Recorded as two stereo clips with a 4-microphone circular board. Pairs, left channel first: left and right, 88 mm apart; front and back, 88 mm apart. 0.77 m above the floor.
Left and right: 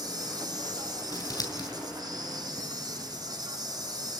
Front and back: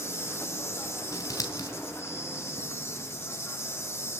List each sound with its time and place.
0.0 s an insect: 55° right, 2.5 m
1.1 s scissors: 50° left, 3.5 m